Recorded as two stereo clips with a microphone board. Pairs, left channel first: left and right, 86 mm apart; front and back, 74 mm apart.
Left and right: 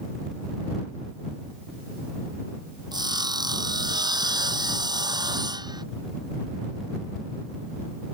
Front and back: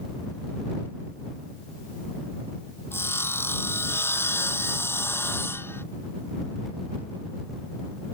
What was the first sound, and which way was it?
Sawing, 55° right.